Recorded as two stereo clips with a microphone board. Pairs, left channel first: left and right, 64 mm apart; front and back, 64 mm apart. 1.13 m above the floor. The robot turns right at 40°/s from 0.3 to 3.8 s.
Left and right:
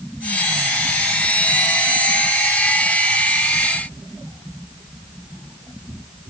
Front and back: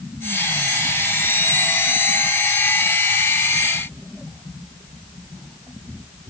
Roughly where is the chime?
No chime in this recording.